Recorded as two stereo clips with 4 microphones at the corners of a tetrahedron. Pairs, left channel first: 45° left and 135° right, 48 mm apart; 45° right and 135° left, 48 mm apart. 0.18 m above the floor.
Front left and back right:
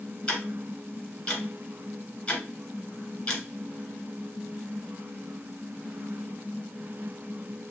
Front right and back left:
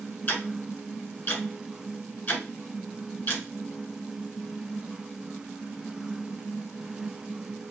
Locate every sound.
0.3 s ticking: 5° right, 1.4 m